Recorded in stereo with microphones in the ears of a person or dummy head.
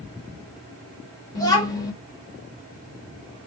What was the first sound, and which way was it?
A child speaking, 20° left (ahead or behind).